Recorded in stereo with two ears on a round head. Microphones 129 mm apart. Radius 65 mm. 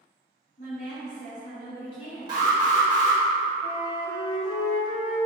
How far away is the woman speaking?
About 1.9 m.